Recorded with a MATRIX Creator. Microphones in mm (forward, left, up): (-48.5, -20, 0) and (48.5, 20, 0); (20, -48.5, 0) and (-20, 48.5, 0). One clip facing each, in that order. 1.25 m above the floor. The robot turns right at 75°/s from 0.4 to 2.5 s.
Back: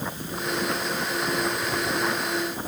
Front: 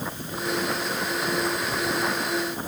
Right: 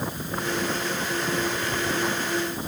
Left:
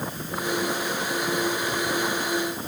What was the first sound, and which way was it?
Only background noise.